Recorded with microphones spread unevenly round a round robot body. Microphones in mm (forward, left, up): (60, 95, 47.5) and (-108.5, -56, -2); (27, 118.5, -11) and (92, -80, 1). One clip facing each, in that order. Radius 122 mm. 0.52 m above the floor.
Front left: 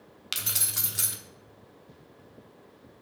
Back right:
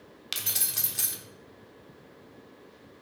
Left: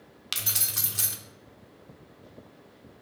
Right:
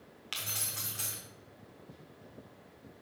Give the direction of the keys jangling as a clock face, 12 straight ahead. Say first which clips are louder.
Front left 1 dB, left 4 dB; 8 o'clock.